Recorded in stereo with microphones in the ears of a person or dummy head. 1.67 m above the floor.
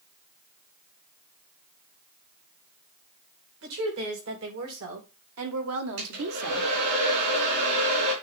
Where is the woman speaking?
75° right (ahead or behind), 3.5 m; by 6.7 s 85° right, 1.0 m.